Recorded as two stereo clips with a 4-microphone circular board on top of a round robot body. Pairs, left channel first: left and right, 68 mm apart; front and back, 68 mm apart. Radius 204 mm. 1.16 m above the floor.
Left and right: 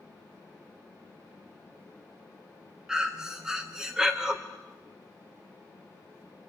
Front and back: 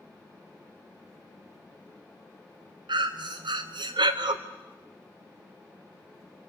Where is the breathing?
175° right, 0.6 m.